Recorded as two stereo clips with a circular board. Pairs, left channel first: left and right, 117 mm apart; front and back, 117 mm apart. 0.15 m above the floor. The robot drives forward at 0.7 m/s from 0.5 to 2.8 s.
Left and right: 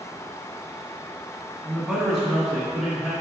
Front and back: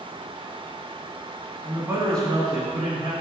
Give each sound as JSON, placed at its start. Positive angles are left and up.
{"t": 1.6, "sound": "a man speaking", "azimuth_deg": -165, "distance_m": 1.0}